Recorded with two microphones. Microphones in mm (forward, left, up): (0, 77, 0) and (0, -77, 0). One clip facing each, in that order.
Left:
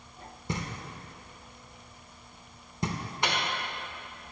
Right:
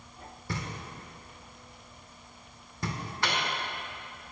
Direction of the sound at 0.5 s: 20° left (ahead or behind).